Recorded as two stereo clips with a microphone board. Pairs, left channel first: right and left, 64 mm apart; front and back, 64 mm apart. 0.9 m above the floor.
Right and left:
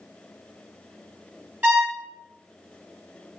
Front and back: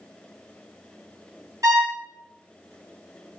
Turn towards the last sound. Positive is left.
turn(degrees=150)